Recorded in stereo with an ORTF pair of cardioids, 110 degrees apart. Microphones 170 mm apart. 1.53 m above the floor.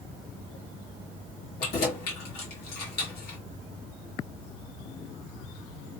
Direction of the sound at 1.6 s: 65° left.